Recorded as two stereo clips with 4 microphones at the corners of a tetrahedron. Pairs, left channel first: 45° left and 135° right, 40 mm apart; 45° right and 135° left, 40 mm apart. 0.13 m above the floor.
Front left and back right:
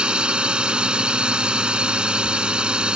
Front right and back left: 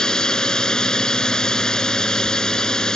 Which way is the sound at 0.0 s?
95° right.